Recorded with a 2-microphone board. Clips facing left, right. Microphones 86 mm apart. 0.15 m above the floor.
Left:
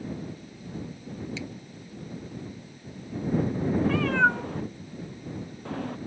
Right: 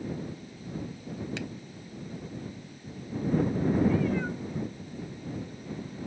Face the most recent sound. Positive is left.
turn(degrees=75)  # may be behind; listen again after turning